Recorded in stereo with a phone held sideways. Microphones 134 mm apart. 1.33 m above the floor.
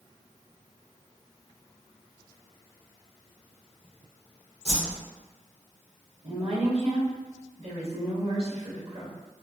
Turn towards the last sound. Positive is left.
turn(degrees=-50)  # may be behind; listen again after turning